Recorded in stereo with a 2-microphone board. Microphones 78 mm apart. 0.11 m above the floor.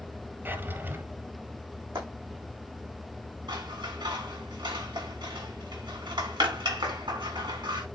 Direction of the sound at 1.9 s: 60° right (ahead or behind).